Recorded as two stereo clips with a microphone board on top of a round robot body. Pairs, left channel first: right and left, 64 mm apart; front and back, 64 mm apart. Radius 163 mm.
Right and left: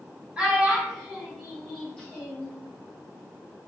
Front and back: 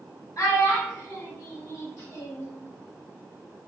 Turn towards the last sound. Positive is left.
turn(degrees=-25)